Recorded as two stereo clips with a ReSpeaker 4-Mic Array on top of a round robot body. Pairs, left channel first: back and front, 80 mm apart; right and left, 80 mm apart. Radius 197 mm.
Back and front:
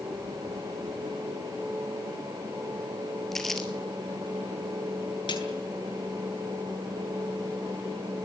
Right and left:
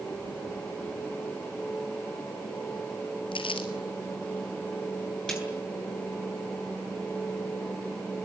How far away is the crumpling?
About 2.5 m.